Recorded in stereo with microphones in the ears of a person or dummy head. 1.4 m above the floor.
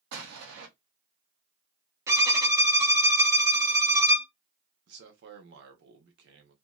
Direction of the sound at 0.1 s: 75° right (ahead or behind).